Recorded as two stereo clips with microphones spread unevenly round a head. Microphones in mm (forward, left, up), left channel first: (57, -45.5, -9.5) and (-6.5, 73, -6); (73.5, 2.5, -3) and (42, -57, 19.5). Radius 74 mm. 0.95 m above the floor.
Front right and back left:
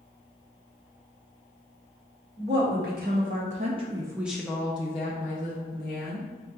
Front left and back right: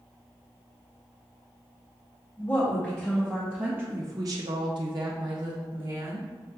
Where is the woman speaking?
130° left, 1.2 m; by 6.3 s 80° right, 1.2 m.